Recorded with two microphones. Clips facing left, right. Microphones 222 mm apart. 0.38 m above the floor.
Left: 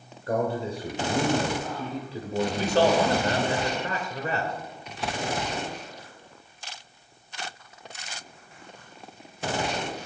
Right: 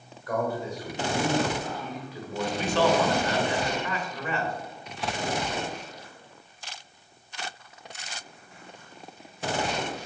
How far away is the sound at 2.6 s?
About 1.5 m.